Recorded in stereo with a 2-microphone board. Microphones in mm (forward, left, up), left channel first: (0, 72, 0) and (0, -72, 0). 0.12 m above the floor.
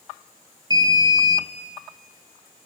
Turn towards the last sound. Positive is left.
turn(degrees=-30)  # may be behind; listen again after turning